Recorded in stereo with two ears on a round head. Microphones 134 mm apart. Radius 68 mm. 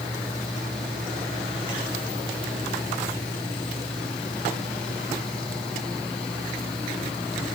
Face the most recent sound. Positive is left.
No sound to turn to.